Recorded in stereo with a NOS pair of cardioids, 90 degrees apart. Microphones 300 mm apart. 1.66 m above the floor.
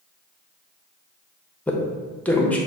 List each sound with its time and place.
1.7 s a man speaking: 5° left, 0.8 m